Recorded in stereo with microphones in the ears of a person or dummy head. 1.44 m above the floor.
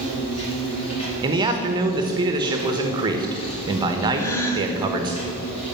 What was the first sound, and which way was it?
An insect, 30° left (ahead or behind).